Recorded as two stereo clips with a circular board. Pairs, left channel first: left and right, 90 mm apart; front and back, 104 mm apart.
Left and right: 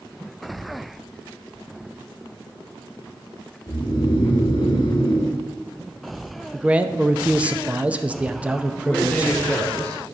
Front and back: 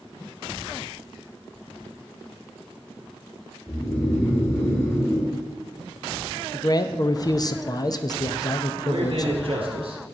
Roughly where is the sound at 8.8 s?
Behind.